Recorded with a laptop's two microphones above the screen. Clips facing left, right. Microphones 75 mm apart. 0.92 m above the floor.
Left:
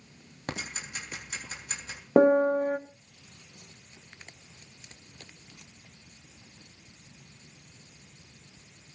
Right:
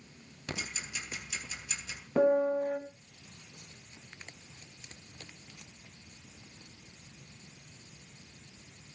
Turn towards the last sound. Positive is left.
turn(degrees=60)  # may be behind; listen again after turning